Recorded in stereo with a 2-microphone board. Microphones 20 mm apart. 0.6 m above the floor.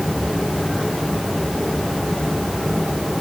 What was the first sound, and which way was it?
Only background noise.